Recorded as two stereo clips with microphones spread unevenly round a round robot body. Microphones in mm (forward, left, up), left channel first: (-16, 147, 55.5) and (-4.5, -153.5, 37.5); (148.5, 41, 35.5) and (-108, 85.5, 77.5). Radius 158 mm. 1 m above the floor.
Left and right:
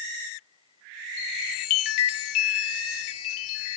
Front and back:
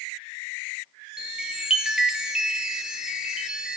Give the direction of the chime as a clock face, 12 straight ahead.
9 o'clock.